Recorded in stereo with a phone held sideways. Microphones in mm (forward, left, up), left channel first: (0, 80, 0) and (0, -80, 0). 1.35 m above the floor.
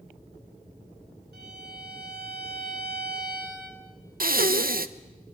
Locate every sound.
1.3 s a violin: 85° right, 3.5 m
4.2 s breathing: 65° right (ahead or behind), 0.7 m